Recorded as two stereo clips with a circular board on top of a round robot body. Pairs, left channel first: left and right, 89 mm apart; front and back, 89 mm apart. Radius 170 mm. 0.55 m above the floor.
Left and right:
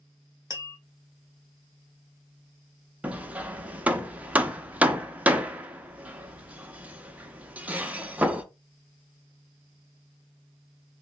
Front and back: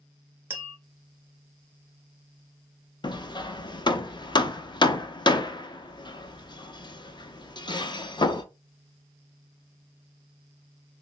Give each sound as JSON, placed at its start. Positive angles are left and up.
{"t": 0.5, "sound": "tapping", "azimuth_deg": 120, "distance_m": 1.6}
{"t": 3.0, "sound": "hammering", "azimuth_deg": -20, "distance_m": 0.7}